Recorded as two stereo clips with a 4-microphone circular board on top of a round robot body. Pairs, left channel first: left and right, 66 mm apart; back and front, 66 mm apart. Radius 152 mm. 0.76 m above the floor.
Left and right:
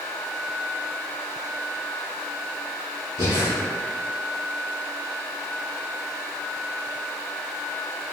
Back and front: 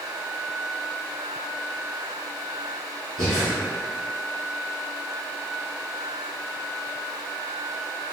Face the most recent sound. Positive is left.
turn(degrees=-90)